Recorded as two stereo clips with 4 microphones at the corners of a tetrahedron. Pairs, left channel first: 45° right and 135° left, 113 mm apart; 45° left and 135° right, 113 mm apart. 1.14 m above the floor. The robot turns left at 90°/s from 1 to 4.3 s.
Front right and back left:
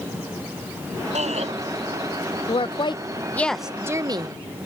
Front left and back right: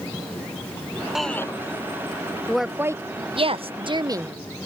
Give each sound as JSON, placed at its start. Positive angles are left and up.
{"t": 1.1, "sound": "a shout", "azimuth_deg": 140}
{"t": 2.5, "sound": "a woman speaking", "azimuth_deg": -35}